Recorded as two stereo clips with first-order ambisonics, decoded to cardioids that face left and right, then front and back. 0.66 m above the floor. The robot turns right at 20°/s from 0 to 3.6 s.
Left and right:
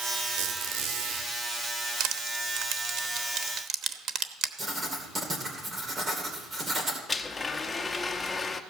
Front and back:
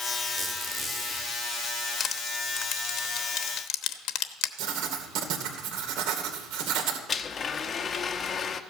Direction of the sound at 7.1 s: 25° left.